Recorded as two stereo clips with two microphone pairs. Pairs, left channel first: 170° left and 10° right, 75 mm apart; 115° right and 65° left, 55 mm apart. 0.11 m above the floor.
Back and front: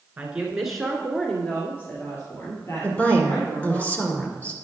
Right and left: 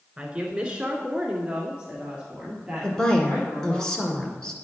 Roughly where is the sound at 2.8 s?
Behind.